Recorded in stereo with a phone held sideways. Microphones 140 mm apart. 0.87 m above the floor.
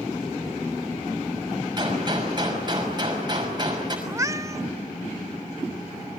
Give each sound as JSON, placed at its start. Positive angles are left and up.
{"t": 1.8, "sound": "a gunshot", "side_deg": -30, "distance_m": 6.0}
{"t": 4.1, "sound": "a cat meowing", "side_deg": -20, "distance_m": 0.6}